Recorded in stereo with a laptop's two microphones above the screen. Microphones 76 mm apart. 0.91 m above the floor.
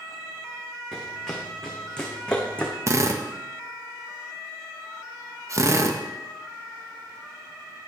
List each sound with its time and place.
0.9 s running footsteps: 5° left (ahead or behind), 3.5 m; by 2.8 s 15° left (ahead or behind), 3 m
2.9 s a drill: 40° right (ahead or behind), 1.1 m